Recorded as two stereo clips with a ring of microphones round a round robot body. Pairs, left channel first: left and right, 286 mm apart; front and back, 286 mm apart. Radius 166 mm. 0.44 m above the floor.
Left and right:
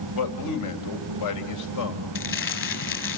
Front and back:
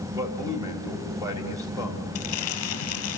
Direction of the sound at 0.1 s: 100° left.